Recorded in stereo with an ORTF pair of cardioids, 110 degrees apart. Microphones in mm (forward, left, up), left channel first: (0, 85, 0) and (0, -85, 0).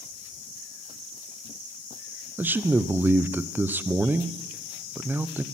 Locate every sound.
2.4 s a man speaking: 10° right, 0.6 m